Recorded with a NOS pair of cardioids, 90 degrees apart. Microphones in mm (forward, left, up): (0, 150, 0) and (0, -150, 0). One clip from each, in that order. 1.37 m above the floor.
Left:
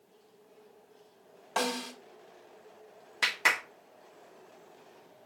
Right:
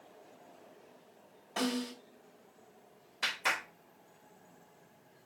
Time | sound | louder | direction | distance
1.6 | a snare drum | left 4 dB | 65° left | 1.9 m
3.2 | a clap | left 6 dB | 70° left | 1.6 m